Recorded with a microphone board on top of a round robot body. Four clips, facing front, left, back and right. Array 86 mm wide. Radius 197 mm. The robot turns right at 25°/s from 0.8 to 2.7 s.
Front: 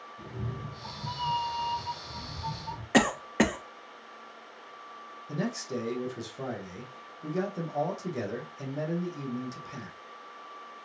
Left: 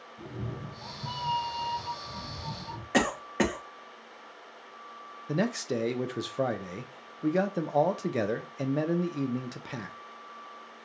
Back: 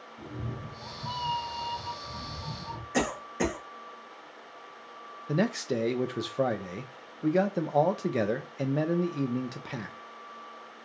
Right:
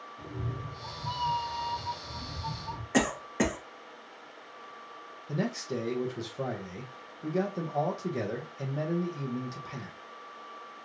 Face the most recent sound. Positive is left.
turn(degrees=140)